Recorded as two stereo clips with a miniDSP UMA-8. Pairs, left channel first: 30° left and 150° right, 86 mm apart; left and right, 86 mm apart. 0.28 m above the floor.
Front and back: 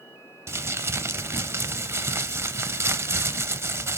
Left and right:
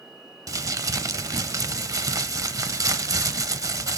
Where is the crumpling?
110° right, 0.5 m.